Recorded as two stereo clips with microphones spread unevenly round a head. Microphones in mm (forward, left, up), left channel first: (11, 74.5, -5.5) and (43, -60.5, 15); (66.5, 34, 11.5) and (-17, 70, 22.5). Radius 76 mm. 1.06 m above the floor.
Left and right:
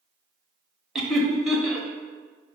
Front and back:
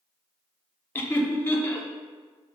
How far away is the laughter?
About 0.6 m.